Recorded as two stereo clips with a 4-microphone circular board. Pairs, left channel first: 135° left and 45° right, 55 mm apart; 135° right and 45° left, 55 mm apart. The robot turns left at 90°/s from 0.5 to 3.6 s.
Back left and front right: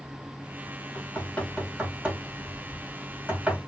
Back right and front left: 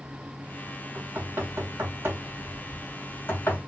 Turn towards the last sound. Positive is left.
turn(degrees=-125)